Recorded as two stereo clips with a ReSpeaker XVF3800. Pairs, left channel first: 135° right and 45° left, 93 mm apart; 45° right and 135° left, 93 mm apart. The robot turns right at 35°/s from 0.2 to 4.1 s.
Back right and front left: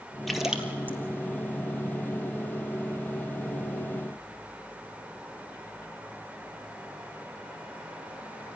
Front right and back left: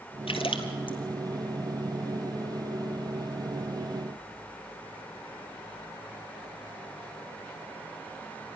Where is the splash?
45° right, 2.5 m; by 1.0 s 20° right, 2.5 m.